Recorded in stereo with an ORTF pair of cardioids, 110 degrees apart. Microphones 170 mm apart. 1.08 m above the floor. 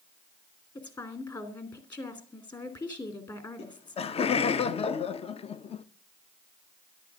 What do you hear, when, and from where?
0.8 s a woman speaking: 25° left, 3 m
3.6 s laughter: 40° left, 0.8 m